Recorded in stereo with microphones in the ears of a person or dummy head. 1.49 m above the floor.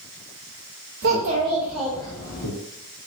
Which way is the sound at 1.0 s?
45° right (ahead or behind).